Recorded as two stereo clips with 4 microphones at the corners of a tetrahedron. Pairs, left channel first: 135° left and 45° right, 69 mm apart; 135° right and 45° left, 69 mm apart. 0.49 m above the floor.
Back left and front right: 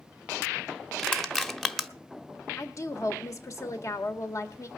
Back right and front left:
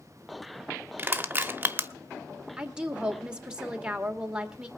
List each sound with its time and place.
1.0 s crushing: 55° left, 1.1 m
2.6 s a woman speaking: 120° left, 1.7 m